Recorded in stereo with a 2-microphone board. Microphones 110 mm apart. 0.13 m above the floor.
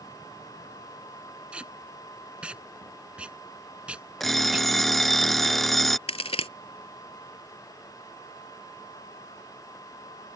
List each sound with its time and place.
1.5 s tape being pulled: 10° right (ahead or behind)
4.2 s an alarm clock: centre (ahead or behind)
6.1 s a crack: 60° left (ahead or behind)